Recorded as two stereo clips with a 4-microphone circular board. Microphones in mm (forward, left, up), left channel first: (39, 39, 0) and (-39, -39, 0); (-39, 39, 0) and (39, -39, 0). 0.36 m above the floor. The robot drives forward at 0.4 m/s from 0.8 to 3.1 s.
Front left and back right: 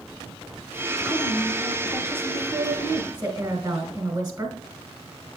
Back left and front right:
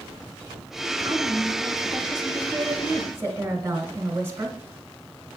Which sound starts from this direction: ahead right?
A woman speaking, at 1.0 s.